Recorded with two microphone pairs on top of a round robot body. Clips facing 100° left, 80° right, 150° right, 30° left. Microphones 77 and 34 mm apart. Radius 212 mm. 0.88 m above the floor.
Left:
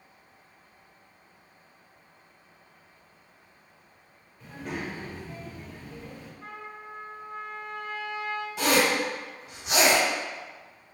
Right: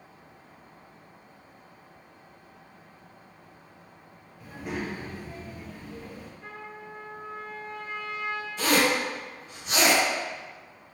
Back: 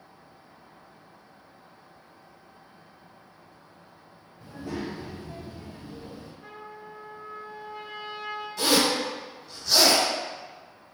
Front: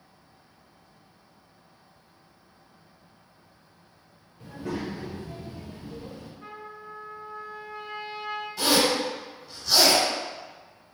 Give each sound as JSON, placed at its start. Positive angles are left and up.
{"t": 4.4, "sound": "a child speaking", "azimuth_deg": 5, "distance_m": 0.8}
{"t": 6.4, "sound": "a trumpet", "azimuth_deg": 70, "distance_m": 1.2}
{"t": 8.6, "sound": "a zipper", "azimuth_deg": 110, "distance_m": 1.2}